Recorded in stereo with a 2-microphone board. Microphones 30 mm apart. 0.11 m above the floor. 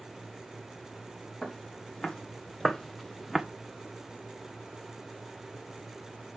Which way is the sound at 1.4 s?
25° left (ahead or behind).